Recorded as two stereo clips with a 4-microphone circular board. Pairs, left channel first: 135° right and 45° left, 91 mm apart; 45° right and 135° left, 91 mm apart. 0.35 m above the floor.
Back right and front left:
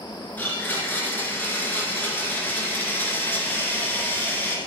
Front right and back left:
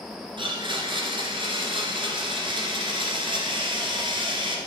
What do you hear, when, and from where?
0.4 s a blender: 155° left, 2.5 m